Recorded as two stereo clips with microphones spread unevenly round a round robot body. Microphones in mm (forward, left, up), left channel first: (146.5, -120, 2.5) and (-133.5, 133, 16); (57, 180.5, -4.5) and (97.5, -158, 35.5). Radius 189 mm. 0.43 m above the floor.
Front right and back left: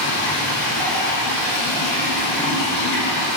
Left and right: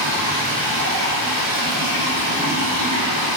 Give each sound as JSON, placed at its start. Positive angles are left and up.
{"t": 0.0, "sound": "running water", "azimuth_deg": -35, "distance_m": 1.1}